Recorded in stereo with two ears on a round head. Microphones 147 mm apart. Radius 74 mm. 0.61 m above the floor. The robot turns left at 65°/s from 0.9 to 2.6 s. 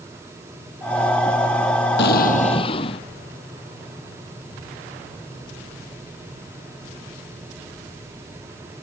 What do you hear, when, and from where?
2.0 s an explosion: 75° left; by 3.0 s 35° left